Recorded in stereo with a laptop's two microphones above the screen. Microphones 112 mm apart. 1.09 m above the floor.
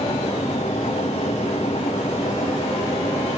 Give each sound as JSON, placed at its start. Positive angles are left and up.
{"t": 0.0, "sound": "a fan", "side_deg": 70, "distance_m": 1.3}